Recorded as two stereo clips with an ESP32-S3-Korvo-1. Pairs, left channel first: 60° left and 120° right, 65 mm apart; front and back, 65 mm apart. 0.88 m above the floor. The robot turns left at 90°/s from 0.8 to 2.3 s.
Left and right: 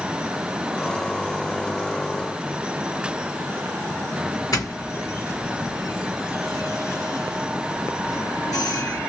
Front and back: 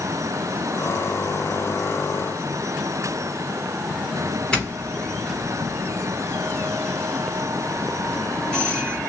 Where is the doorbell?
75° left, 3.5 m.